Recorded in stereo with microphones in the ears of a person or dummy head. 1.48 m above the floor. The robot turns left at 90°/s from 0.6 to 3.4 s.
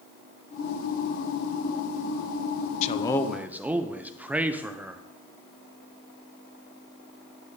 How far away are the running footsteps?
No running footsteps in this recording.